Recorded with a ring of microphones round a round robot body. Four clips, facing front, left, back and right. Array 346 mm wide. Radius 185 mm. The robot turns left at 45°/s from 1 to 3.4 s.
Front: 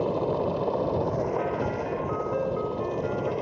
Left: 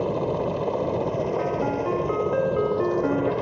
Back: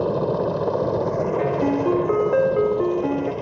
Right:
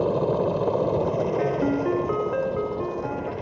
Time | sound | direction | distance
0.0 | a helicopter | 140° right | ?
1.4 | a ringtone | 135° right | ?